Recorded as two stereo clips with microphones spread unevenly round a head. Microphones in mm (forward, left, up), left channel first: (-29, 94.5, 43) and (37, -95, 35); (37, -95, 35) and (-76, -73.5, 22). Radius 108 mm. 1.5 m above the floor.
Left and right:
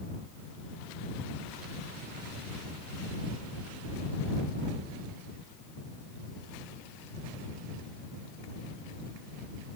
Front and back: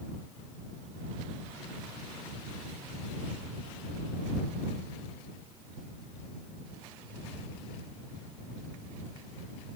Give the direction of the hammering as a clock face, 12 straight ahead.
I don't hear hammering.